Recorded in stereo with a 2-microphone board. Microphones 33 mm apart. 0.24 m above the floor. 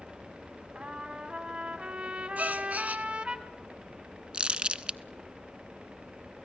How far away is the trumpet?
About 1.6 m.